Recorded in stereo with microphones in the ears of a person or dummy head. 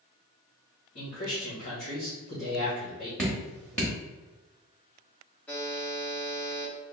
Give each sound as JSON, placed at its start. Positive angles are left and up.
{"t": 0.9, "sound": "a man speaking", "side_deg": 40, "distance_m": 1.5}
{"t": 3.2, "sound": "dripping", "side_deg": 10, "distance_m": 1.1}
{"t": 5.5, "sound": "a buzzer", "side_deg": 10, "distance_m": 0.6}